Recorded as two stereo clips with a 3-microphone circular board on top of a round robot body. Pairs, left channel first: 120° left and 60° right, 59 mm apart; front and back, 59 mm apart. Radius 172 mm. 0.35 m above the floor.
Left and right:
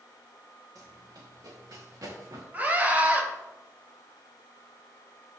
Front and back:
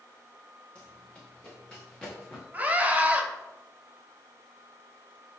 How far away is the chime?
No chime in this recording.